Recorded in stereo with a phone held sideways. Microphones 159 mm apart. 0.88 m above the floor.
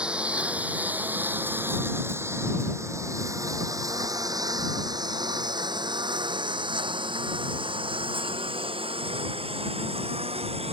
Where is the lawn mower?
5° right (ahead or behind); by 10.7 s 40° right (ahead or behind).